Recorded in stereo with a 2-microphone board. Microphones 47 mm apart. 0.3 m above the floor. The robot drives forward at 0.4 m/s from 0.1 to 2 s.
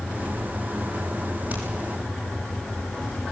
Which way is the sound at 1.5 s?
30° right (ahead or behind).